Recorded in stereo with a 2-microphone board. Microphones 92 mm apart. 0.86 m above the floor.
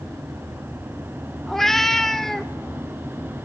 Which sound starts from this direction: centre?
A cat meowing, at 1.5 s.